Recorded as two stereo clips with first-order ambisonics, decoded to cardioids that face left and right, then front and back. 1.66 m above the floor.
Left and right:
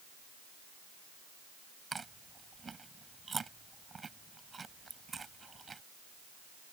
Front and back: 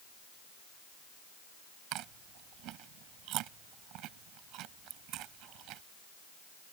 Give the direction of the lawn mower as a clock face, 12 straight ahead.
I don't hear a lawn mower.